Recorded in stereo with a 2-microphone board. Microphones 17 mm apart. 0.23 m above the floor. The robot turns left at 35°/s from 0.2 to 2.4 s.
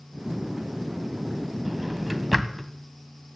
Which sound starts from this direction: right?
A drawer, at 1.6 s.